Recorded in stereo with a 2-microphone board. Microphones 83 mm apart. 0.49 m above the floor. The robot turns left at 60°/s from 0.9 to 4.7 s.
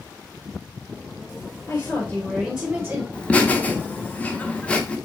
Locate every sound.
1.7 s a woman speaking: 45° left, 2 m; by 3.0 s 35° right, 2 m
3.1 s laughter: 15° left (ahead or behind), 0.8 m